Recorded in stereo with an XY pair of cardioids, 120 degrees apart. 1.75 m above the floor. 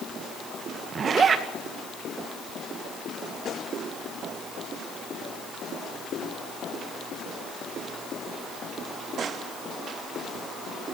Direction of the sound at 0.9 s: 40° right.